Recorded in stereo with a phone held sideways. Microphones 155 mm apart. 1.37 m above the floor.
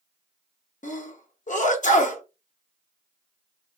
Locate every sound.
0.8 s a sneeze: 55° left (ahead or behind), 0.7 m